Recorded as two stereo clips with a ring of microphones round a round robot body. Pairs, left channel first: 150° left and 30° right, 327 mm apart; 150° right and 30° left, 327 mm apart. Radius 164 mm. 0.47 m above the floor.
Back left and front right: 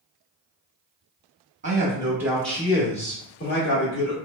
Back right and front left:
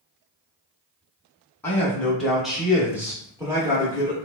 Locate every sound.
1.6 s a man speaking: 75° right, 1.0 m; by 4.2 s 105° left, 1.4 m